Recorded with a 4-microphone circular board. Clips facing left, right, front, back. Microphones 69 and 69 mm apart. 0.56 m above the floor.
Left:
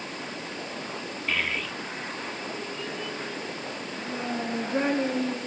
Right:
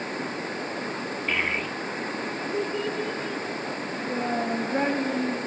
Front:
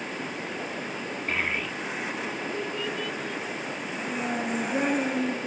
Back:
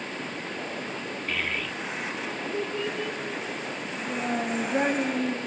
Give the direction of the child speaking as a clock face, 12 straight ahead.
1 o'clock.